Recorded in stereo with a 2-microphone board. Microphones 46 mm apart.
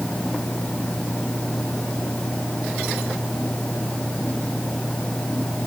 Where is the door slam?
No door slam in this recording.